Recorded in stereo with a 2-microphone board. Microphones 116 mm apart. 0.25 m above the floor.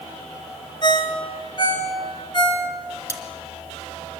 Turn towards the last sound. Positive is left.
turn(degrees=25)  # may be behind; listen again after turning